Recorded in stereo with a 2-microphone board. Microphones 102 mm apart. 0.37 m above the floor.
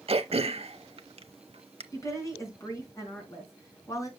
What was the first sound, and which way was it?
Throat clearing, 65° right (ahead or behind).